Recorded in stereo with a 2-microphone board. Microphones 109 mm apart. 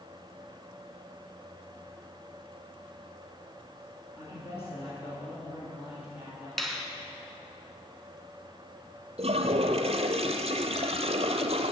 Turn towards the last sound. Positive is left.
turn(degrees=-75)  # may be behind; listen again after turning